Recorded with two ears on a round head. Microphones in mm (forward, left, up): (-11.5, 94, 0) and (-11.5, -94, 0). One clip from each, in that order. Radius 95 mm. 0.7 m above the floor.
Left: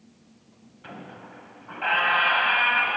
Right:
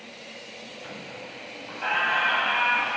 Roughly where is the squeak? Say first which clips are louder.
Left 1 dB; centre.